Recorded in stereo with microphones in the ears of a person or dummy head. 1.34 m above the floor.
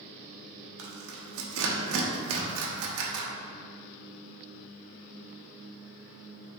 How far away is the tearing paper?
About 0.8 m.